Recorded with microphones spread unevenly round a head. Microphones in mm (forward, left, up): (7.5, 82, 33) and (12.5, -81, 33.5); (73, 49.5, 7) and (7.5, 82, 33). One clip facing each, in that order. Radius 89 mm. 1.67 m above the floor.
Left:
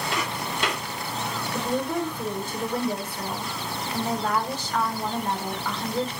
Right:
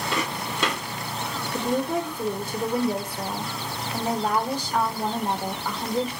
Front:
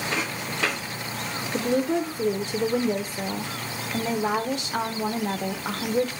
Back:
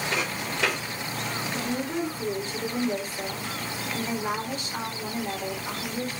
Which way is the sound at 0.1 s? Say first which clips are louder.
Right 1 dB, even; 110° right.